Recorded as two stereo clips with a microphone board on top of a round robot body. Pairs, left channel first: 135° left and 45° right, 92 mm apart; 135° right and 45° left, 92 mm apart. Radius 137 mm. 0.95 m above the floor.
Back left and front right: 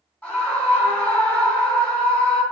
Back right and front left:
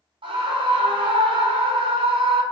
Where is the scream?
65° left, 4.5 m.